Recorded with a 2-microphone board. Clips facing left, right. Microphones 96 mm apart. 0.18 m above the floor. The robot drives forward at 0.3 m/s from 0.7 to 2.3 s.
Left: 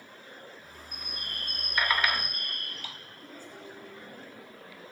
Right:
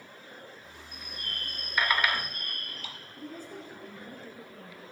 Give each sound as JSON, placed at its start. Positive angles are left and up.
{"t": 0.9, "sound": "a bird", "side_deg": 70, "distance_m": 1.3}
{"t": 3.2, "sound": "a woman speaking", "side_deg": -45, "distance_m": 2.0}